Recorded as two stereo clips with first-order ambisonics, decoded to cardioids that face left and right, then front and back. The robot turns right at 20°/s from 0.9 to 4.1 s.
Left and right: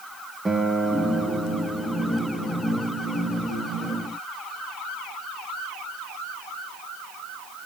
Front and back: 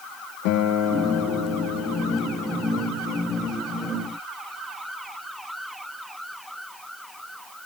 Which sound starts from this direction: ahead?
A guitar, at 0.5 s.